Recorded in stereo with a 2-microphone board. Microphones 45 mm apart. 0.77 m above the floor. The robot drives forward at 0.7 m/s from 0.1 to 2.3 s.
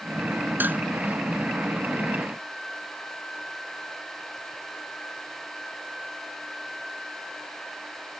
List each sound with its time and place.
0.6 s dishes clattering: 45° right (ahead or behind)